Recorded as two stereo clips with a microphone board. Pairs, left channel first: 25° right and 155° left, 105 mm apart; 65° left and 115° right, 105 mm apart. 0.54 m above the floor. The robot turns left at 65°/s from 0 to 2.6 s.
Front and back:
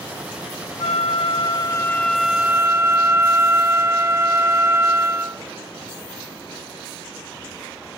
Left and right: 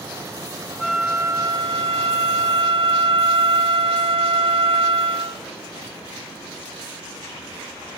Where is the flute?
20° right; by 5.4 s 140° right.